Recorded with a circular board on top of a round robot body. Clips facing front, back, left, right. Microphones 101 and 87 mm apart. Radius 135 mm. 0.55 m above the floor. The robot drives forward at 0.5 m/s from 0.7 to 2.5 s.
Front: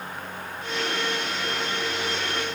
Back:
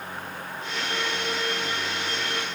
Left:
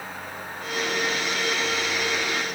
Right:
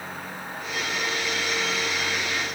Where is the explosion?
I don't hear an explosion.